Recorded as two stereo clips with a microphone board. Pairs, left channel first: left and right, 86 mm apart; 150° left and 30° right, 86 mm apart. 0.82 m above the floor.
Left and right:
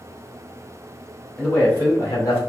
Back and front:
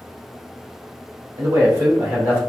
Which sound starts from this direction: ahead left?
A man speaking, at 1.4 s.